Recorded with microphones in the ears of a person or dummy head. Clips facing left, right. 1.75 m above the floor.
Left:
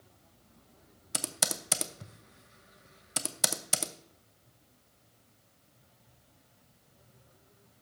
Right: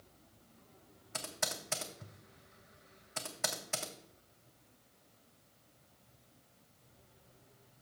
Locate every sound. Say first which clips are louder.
1.1 s typing on a keyboard: left 4 dB; 35° left (ahead or behind), 0.6 m